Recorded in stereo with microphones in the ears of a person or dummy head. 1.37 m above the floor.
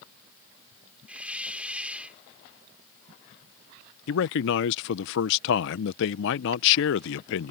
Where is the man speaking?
70° left (ahead or behind).